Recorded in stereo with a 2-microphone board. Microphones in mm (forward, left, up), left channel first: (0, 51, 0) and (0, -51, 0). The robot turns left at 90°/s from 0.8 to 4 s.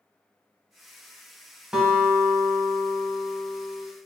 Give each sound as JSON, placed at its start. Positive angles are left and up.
{"t": 1.7, "sound": "a guitar", "azimuth_deg": -10, "distance_m": 1.0}